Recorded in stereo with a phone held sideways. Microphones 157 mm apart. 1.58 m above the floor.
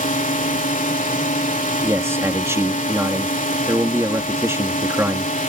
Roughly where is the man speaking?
Centre.